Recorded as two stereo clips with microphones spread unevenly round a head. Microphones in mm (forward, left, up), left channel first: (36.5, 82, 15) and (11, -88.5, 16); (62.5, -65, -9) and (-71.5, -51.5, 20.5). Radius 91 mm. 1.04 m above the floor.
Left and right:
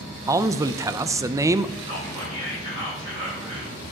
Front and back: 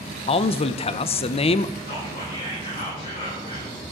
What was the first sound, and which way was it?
A man speaking, 30° right.